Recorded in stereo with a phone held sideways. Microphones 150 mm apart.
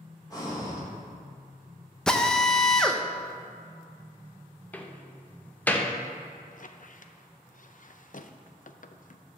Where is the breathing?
25° left (ahead or behind), 3 m.